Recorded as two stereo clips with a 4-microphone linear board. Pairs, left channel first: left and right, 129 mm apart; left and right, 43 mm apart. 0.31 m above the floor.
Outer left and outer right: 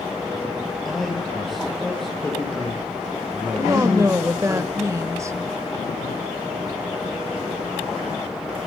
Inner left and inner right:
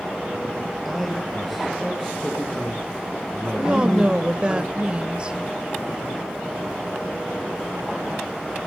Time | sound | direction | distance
0.8 | a man speaking | centre (ahead or behind) | 8 m
3.6 | a woman speaking | 25° right (ahead or behind) | 1.1 m